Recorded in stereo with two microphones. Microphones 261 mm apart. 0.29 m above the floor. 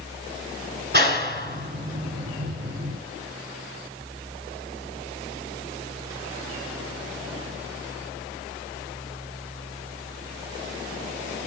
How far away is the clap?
About 3.5 m.